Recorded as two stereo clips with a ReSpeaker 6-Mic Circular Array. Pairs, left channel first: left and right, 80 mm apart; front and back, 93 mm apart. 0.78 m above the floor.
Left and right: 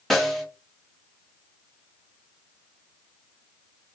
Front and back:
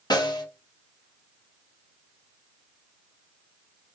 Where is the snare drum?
Straight ahead, 0.9 m.